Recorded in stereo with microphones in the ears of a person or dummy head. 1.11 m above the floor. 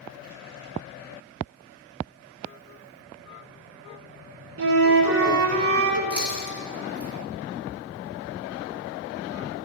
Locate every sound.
4.6 s a flute: 75° right (ahead or behind), 1.1 m
6.1 s chewing: 40° right (ahead or behind), 1.7 m